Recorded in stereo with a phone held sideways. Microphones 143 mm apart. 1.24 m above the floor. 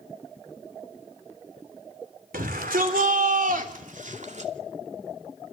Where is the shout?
85° right, 4 m; by 4.5 s 55° right (ahead or behind), 3 m.